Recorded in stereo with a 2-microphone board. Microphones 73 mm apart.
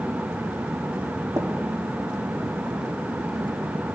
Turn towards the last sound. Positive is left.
turn(degrees=-40)  # may be behind; listen again after turning